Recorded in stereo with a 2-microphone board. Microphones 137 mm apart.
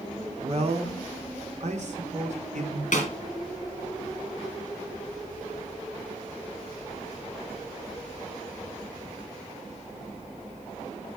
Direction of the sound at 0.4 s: 45° right (ahead or behind).